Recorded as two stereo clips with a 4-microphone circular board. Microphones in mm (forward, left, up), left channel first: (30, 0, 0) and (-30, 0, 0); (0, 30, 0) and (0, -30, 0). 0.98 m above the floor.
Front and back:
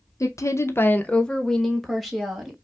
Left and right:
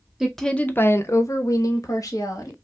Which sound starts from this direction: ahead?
A woman speaking, at 0.2 s.